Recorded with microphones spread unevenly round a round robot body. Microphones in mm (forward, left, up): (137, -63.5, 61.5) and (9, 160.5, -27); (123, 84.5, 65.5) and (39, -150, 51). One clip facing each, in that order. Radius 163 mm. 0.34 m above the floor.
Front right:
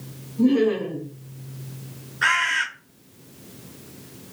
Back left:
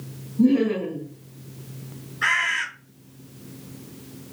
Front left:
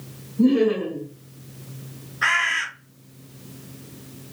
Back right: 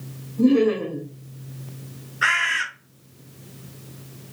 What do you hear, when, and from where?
0.4 s laughter: 135° right, 1.3 m
2.2 s a bird: 160° right, 1.5 m